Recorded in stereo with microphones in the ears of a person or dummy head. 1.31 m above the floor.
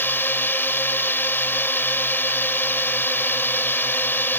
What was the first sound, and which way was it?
A drone, 10° left (ahead or behind).